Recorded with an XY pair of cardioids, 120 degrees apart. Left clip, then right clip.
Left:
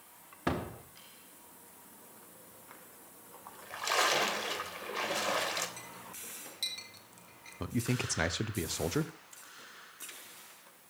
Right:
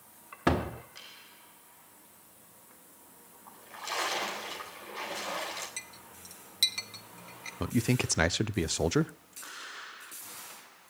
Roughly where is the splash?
Ahead left.